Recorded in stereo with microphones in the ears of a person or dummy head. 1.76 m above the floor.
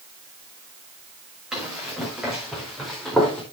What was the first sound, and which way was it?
Running footsteps, 5° right (ahead or behind).